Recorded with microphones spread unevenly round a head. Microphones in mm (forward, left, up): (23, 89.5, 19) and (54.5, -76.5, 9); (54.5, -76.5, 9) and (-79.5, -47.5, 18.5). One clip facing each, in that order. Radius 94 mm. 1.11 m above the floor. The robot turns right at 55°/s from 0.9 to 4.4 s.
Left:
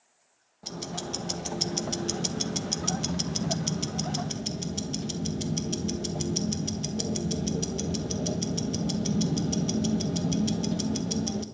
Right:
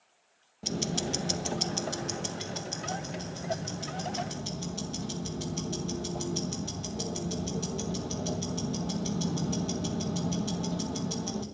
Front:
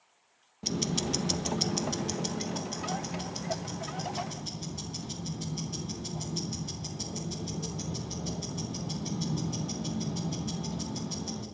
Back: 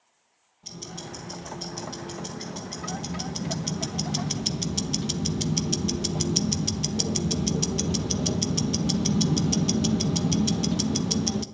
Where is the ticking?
20° right, 0.9 m; by 11.4 s 170° left, 0.9 m.